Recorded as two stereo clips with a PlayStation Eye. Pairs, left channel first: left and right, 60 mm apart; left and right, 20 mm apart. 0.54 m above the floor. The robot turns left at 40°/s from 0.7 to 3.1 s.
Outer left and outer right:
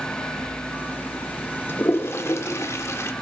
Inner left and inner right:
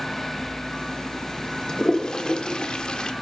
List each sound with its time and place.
1.7 s a toilet flushing: 35° left (ahead or behind), 1.1 m; by 3.1 s 50° left (ahead or behind), 1.1 m